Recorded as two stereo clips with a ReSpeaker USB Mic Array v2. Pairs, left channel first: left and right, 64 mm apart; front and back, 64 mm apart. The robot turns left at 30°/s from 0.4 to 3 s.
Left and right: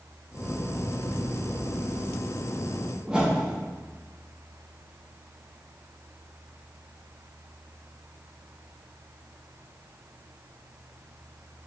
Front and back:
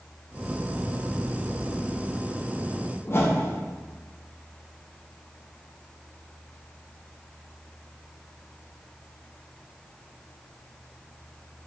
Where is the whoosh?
20° right, 0.6 m.